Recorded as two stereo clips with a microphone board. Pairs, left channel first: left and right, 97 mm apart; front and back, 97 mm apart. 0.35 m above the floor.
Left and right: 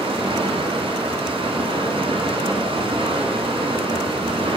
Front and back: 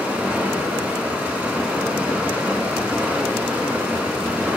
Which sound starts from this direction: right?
Running water, at 0.0 s.